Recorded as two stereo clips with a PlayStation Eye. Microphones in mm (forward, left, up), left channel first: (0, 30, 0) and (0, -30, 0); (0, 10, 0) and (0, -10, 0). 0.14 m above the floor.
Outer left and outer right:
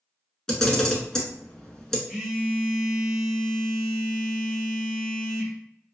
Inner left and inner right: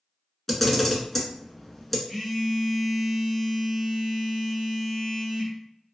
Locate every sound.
0.5 s a camera shutter: 10° left (ahead or behind), 0.6 m
2.1 s a phone buzzing: 5° right (ahead or behind), 1.3 m